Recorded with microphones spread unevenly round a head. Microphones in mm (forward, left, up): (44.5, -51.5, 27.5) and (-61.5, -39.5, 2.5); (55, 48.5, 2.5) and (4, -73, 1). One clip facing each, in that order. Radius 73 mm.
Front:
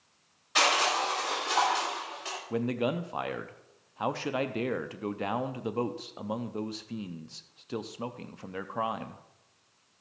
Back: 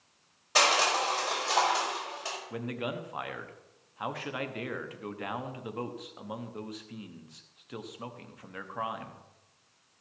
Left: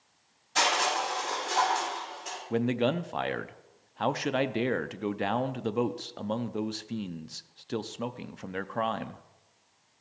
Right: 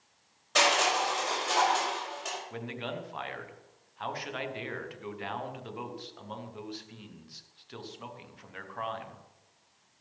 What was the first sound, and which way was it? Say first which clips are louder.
Crushing: back 1 dB, right 1 dB; 140° right.